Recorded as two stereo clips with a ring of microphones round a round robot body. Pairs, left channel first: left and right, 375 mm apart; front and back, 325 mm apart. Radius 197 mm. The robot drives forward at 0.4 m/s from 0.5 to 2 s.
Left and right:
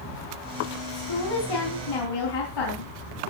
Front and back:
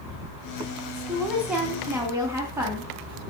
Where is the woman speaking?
90° left, 3 m; by 2.9 s 100° left, 3 m.